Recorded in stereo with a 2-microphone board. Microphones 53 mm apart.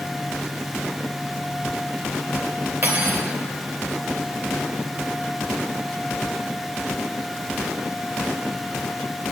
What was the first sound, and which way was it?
Cutlery clinking, 35° right (ahead or behind).